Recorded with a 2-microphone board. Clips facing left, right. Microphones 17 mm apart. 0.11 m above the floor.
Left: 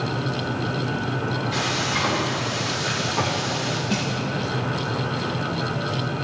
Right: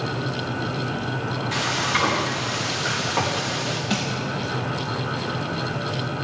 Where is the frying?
45° right (ahead or behind), 4.5 m.